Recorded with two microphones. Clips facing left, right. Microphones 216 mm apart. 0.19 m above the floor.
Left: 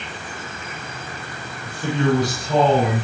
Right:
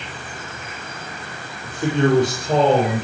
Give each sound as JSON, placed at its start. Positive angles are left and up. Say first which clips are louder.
{"t": 1.6, "sound": "a man speaking", "louder": "right 3 dB", "side_deg": -70, "distance_m": 5.0}